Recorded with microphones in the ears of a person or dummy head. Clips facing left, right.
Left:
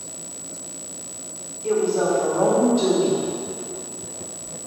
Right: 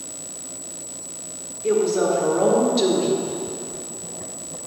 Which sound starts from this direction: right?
A woman speaking, at 1.6 s.